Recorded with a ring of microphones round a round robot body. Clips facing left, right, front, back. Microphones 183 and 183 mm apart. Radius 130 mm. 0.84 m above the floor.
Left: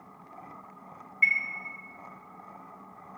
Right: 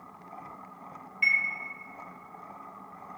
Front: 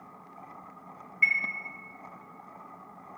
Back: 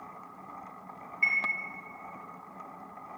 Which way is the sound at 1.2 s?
15° left.